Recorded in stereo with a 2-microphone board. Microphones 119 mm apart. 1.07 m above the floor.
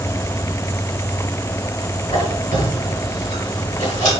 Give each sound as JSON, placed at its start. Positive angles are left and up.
{"t": 2.1, "sound": "a squeak", "side_deg": 80, "distance_m": 3.5}